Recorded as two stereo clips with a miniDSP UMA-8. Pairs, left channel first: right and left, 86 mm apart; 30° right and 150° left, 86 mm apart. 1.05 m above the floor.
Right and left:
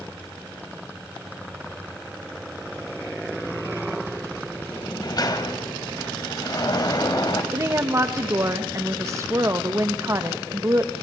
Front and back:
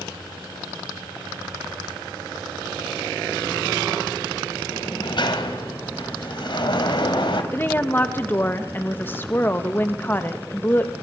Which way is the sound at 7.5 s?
35° left.